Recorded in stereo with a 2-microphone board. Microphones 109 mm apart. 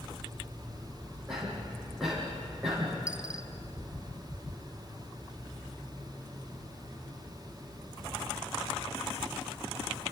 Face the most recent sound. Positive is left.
turn(degrees=-10)  # may be behind; listen again after turning